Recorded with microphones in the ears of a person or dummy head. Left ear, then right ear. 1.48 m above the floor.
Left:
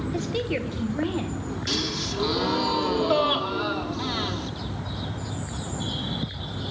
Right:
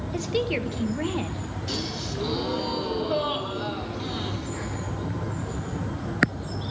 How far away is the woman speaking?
About 1.2 m.